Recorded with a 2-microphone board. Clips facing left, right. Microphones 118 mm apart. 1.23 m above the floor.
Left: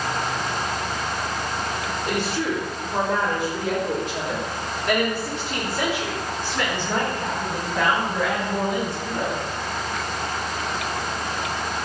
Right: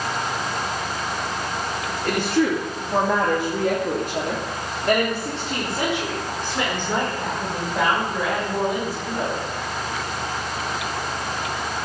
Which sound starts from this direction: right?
A woman speaking, at 2.0 s.